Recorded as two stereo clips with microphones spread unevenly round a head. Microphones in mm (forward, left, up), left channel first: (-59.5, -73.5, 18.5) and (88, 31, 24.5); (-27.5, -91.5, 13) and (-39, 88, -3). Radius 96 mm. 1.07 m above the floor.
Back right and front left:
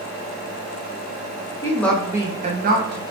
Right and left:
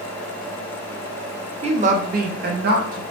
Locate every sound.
1.6 s a woman speaking: 145° left, 0.7 m; by 3.0 s 60° left, 0.8 m